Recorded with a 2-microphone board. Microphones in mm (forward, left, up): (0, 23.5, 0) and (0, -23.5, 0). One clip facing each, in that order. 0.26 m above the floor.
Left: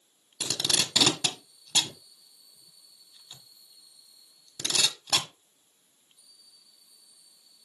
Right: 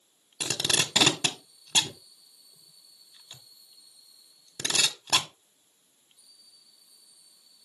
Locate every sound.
0.4 s tape being pulled: 35° right (ahead or behind), 1.2 m